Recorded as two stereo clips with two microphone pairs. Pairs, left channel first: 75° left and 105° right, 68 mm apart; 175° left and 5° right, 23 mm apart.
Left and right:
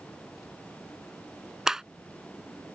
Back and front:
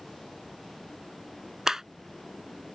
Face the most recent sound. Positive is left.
turn(degrees=-40)